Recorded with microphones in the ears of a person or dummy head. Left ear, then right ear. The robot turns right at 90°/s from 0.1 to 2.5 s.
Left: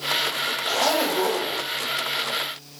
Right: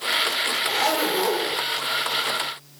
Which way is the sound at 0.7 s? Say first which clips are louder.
Left 4 dB; 160° right.